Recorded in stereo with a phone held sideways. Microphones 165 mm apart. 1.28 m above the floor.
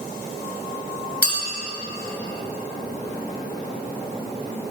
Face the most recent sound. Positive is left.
turn(degrees=75)  # may be behind; listen again after turning